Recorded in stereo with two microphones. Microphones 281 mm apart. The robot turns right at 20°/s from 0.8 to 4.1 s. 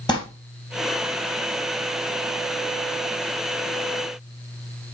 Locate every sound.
0.1 s crumpling: 15° left (ahead or behind), 3 m